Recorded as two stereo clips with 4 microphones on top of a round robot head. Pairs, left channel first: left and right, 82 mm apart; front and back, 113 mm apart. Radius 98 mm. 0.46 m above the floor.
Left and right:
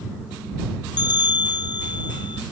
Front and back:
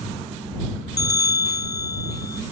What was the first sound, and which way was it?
A bell, 60° left.